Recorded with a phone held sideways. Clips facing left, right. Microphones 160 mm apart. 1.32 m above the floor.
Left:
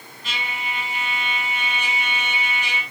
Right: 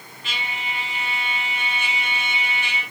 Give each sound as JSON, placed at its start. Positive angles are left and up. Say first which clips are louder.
{"t": 0.2, "sound": "a trumpet", "louder": "left 1 dB", "side_deg": 40, "distance_m": 8.5}